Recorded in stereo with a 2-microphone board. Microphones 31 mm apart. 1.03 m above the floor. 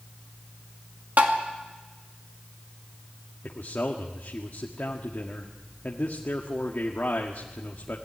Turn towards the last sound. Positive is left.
turn(degrees=65)  # may be behind; listen again after turning